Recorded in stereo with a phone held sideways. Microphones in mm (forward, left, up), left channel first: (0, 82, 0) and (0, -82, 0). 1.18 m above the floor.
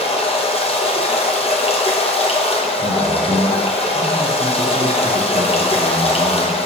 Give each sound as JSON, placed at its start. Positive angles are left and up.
{"t": 0.0, "sound": "running water", "side_deg": 35, "distance_m": 0.9}
{"t": 2.8, "sound": "a man speaking", "side_deg": -35, "distance_m": 0.8}